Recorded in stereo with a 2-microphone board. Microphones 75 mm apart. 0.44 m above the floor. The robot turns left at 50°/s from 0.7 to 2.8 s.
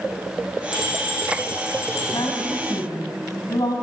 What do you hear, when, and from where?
0.7 s a bell: 170° right, 8 m; by 2.0 s 125° left, 8 m
2.1 s a woman speaking: 65° left (ahead or behind), 3.5 m